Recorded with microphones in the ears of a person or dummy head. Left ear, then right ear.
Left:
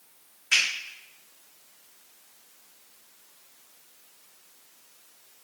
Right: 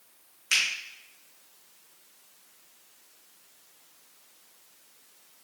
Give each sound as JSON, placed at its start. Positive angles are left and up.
{"t": 0.5, "sound": "a finger snap", "side_deg": -70, "distance_m": 2.5}